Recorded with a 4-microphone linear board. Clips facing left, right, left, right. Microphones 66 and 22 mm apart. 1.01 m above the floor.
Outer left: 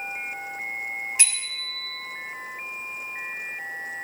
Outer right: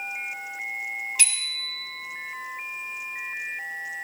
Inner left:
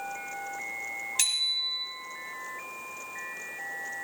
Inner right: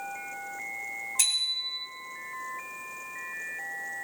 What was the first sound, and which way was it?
A bicycle bell, 30° left (ahead or behind).